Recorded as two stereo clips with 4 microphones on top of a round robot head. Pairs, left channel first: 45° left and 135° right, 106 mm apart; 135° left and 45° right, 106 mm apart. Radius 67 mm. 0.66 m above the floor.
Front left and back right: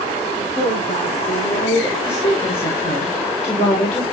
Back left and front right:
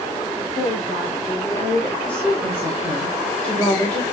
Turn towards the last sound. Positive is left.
turn(degrees=60)